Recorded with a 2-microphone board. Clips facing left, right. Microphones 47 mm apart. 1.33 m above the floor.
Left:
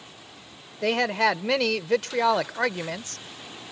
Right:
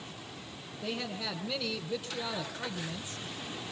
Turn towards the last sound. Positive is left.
turn(degrees=85)